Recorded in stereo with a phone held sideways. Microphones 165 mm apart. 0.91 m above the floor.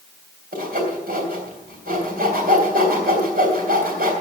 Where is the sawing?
75° right (ahead or behind), 3.5 m.